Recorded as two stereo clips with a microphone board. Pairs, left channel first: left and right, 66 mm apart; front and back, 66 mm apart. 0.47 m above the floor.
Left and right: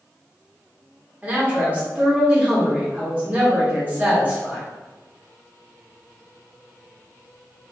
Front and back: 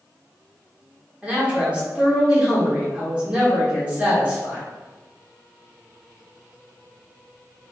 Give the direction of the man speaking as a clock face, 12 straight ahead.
4 o'clock.